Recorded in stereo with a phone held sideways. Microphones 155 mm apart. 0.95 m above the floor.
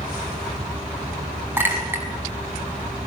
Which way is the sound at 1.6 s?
15° right (ahead or behind).